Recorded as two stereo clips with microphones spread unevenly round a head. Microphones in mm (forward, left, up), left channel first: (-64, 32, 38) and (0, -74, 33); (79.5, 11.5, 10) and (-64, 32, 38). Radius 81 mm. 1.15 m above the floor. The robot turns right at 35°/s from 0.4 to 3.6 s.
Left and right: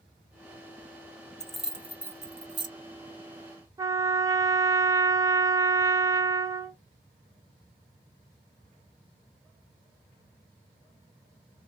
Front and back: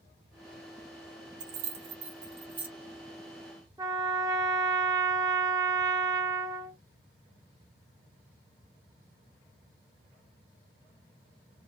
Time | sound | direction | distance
1.4 | keys jangling | 155° right | 0.8 m
3.8 | a trumpet | 125° right | 0.6 m